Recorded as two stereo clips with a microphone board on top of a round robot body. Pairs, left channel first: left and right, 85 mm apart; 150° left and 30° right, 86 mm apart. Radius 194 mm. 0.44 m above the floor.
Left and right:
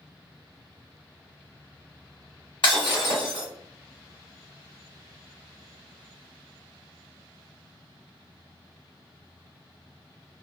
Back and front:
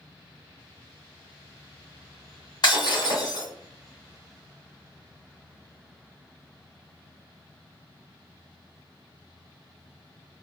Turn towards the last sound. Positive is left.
turn(degrees=110)